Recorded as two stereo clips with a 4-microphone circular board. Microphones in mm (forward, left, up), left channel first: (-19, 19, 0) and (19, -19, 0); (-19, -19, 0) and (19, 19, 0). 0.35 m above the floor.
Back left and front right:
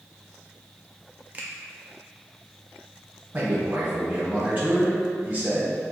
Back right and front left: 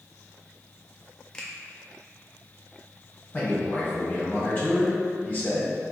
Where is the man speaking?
90° right, 1.0 m.